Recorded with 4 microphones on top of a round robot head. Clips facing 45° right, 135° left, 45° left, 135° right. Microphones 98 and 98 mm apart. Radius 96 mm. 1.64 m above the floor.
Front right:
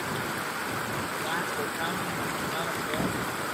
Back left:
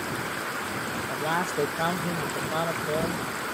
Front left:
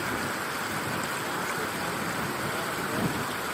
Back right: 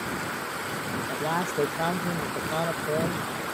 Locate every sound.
1.1 s a man speaking: 165° right